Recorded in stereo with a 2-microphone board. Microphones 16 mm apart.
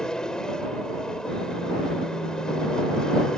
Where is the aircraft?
50° left (ahead or behind).